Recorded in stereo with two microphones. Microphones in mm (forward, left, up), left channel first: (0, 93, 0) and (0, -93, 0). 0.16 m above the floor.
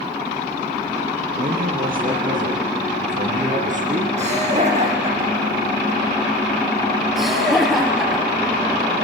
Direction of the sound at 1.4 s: 50° right (ahead or behind).